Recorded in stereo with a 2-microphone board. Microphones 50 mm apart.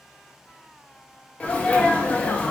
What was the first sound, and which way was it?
A sneeze, 25° left (ahead or behind).